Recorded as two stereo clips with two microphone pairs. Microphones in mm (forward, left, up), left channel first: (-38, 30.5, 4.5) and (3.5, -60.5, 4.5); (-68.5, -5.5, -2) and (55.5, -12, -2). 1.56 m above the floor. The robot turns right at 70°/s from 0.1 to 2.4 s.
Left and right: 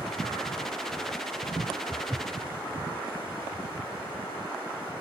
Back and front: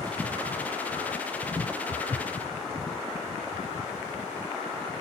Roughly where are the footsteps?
Ahead.